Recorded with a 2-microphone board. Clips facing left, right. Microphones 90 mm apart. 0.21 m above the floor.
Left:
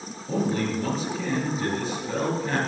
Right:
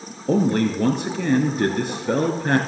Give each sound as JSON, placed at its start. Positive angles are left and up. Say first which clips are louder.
{"t": 0.3, "sound": "a man speaking", "louder": "right 6 dB", "side_deg": -70, "distance_m": 3.0}